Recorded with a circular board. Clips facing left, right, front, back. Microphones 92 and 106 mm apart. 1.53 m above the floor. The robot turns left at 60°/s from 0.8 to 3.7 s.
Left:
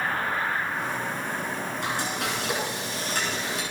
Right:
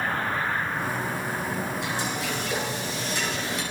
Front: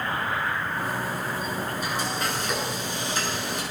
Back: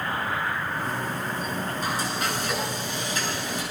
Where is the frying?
135° left, 8 m; by 3.6 s 30° left, 8 m.